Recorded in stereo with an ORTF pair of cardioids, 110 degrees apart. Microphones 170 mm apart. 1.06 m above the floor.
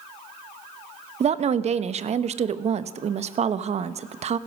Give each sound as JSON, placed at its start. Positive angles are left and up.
{"t": 1.2, "sound": "a woman speaking", "azimuth_deg": -40, "distance_m": 0.9}